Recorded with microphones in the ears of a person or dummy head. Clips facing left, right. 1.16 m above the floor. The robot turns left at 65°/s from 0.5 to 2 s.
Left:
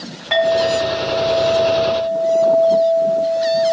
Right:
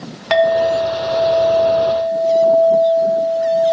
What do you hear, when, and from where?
0.3 s a clink: 110° right, 1.2 m; by 3.7 s 150° left, 1.2 m